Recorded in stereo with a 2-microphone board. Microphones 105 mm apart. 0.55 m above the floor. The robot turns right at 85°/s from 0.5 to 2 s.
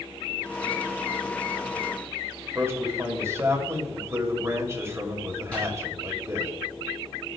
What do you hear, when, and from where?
2.5 s a man speaking: 25° right (ahead or behind), 1.9 m
5.5 s tearing paper: 10° left (ahead or behind), 4.5 m